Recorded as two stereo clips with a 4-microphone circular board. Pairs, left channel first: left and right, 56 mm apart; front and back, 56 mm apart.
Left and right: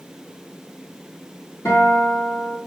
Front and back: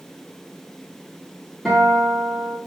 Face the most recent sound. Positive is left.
turn(degrees=90)